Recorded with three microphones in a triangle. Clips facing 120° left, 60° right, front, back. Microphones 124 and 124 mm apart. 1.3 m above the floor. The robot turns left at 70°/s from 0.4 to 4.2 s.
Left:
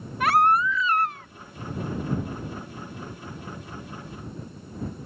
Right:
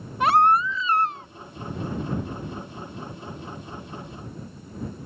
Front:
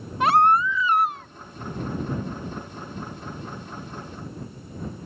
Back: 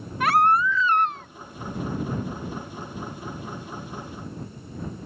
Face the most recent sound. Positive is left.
turn(degrees=65)